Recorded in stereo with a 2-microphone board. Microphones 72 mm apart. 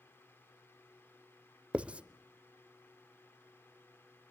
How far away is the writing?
About 0.9 m.